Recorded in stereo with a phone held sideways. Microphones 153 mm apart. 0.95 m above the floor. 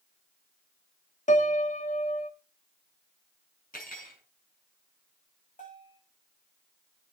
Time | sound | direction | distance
1.3 | a piano | 60° left (ahead or behind) | 1.3 m
3.7 | cutlery clinking | 75° left (ahead or behind) | 6.5 m
5.6 | a bell | 60° left (ahead or behind) | 7 m